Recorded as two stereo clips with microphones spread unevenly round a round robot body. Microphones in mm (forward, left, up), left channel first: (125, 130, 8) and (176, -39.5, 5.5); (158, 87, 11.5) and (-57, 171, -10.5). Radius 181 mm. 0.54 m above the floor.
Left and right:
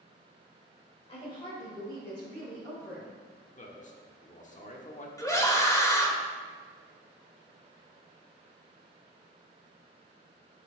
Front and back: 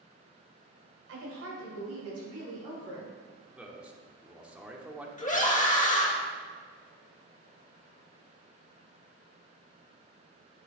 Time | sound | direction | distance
1.1 | a woman speaking | 170° left | 1.9 m
3.6 | a man speaking | 80° left | 1.3 m
5.2 | a scream | 35° left | 2 m